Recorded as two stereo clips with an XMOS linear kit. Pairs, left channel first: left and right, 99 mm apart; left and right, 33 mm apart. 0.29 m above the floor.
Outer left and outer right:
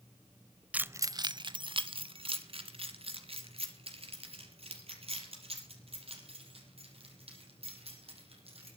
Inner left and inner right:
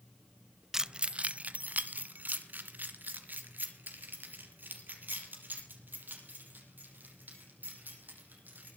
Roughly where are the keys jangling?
Centre.